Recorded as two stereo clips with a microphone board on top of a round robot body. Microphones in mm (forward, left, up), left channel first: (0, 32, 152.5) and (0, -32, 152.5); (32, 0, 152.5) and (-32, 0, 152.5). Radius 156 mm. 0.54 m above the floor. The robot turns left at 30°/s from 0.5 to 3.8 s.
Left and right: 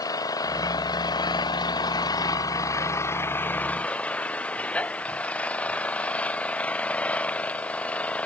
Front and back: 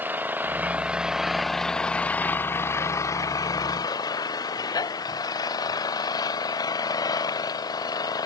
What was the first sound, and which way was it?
An engine running, 115° left.